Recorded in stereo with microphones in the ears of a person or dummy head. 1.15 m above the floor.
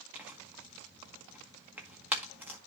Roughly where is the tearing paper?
Centre.